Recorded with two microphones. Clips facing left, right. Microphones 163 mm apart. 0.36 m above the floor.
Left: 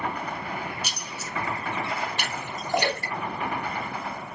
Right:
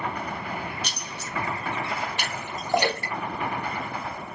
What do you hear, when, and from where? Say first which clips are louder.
0.8 s keys jangling: even; 5° left (ahead or behind), 0.5 m
2.2 s a splash: even; 15° right (ahead or behind), 1.5 m